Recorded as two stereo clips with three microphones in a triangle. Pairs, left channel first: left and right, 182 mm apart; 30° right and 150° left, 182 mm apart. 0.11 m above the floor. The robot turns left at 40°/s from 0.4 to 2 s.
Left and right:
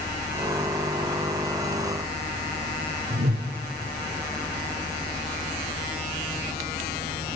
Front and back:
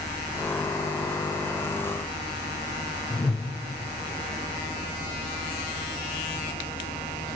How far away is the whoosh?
About 4.5 m.